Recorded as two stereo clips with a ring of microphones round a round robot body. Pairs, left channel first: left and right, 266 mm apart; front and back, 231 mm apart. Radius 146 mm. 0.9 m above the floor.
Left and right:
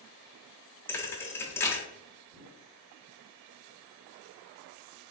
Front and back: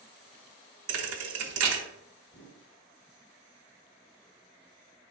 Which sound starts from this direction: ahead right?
A whoosh, at 2.3 s.